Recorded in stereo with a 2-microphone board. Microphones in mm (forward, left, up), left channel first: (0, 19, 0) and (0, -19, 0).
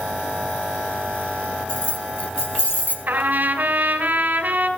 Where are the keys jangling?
35° left (ahead or behind), 4 m; by 3.0 s 45° left (ahead or behind), 2.5 m.